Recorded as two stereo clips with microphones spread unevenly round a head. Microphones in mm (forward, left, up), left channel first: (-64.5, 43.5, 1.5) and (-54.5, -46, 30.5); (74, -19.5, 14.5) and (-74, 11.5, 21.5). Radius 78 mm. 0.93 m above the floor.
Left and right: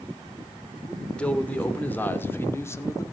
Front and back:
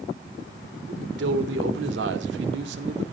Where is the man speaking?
175° left, 2.5 m; by 3.0 s 150° left, 1.9 m.